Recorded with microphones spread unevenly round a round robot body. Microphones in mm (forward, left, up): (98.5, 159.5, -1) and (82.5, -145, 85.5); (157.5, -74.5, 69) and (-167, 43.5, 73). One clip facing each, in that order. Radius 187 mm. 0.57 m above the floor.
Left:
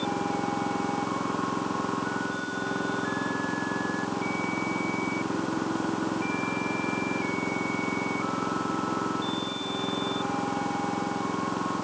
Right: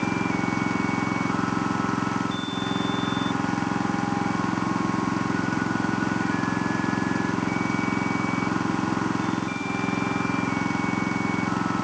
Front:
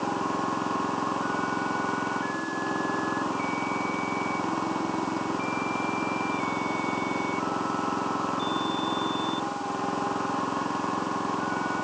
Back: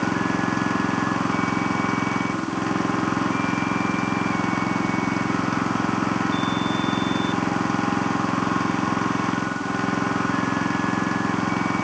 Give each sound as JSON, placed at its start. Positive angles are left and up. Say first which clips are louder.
{"t": 0.0, "sound": "an engine running", "louder": "right 4 dB, back 6 dB", "azimuth_deg": -150}